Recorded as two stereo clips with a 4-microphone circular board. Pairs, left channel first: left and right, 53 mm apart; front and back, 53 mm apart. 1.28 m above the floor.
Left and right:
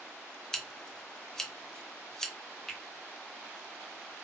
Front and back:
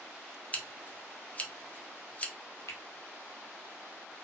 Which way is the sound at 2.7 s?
10° left.